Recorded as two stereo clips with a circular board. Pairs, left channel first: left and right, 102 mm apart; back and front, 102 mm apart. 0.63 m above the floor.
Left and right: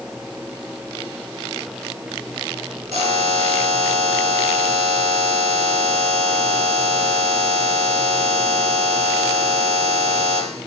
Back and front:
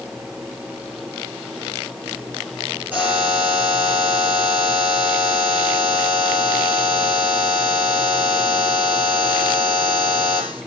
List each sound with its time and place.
2.9 s a buzzer: 75° right, 6.5 m